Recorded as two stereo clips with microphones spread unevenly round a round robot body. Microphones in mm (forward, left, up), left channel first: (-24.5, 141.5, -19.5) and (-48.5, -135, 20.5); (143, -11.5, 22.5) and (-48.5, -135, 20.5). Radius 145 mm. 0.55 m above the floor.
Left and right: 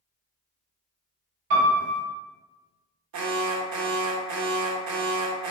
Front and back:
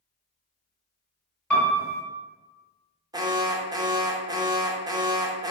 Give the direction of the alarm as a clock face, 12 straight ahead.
3 o'clock.